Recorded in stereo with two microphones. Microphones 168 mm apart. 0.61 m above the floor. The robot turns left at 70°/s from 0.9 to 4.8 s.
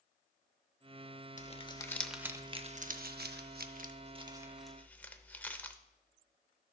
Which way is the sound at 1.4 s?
50° left (ahead or behind).